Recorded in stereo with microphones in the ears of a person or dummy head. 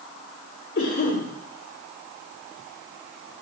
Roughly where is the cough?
Left.